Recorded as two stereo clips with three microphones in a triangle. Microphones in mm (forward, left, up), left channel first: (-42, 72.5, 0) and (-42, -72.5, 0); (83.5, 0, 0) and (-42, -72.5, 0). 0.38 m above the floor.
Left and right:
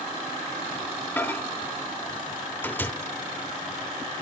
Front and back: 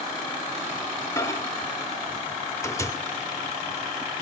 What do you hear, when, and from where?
1.2 s a microwave: 40° left, 0.6 m